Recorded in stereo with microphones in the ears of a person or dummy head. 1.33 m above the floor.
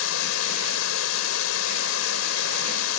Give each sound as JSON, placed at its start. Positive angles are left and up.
{"t": 0.0, "sound": "running water", "side_deg": 90}